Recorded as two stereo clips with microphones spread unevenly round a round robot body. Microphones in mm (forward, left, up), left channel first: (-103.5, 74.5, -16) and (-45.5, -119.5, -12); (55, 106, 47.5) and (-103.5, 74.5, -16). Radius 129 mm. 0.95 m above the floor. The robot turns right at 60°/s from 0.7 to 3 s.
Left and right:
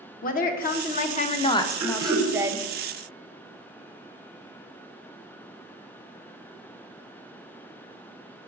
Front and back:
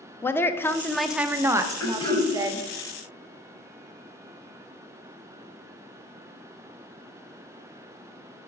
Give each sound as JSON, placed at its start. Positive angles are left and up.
{"t": 0.2, "sound": "a woman speaking", "azimuth_deg": 110, "distance_m": 0.5}
{"t": 1.8, "sound": "throat clearing", "azimuth_deg": -25, "distance_m": 0.9}